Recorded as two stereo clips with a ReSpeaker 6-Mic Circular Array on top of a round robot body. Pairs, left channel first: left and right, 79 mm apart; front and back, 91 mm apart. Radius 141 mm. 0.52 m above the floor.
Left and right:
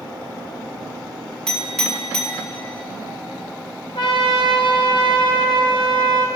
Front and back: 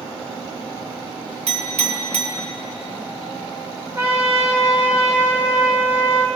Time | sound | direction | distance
1.5 | a clink | 175° left | 2.5 m
4.0 | a trumpet | 110° left | 1.6 m